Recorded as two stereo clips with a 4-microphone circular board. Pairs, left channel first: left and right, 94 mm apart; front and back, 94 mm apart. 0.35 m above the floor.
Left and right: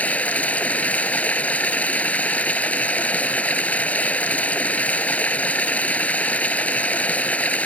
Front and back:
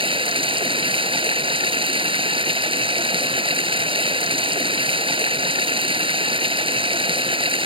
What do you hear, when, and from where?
0.0 s running water: 165° left